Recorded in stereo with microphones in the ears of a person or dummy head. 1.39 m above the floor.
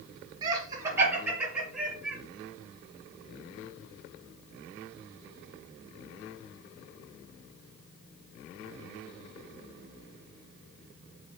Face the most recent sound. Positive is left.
turn(degrees=-5)  # may be behind; listen again after turning